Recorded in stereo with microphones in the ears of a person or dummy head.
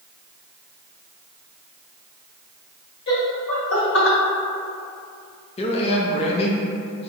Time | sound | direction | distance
3.1 | laughter | 65° left (ahead or behind) | 1.9 m
5.6 | a man speaking | 30° left (ahead or behind) | 0.7 m